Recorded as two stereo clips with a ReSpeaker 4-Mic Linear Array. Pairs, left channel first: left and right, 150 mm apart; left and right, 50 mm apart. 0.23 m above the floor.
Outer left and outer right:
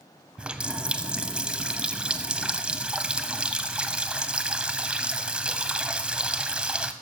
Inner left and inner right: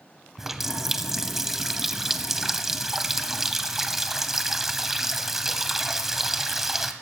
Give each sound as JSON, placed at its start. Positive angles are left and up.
{"t": 0.4, "sound": "a running tap", "side_deg": -5, "distance_m": 0.8}